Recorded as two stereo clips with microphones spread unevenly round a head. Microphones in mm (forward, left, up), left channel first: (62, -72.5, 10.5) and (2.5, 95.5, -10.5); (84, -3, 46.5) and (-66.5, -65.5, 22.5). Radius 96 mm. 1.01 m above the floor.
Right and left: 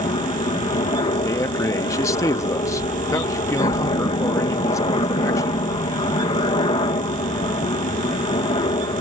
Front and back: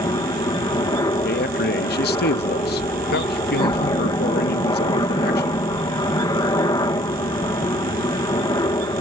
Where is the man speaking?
5° left.